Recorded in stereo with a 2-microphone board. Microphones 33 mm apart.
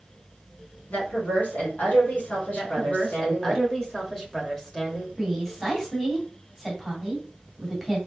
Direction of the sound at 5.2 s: 5° left (ahead or behind).